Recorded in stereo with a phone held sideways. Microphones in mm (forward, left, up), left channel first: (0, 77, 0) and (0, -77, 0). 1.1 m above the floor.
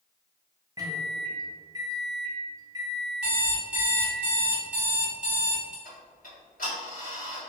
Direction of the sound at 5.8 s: 65° left (ahead or behind).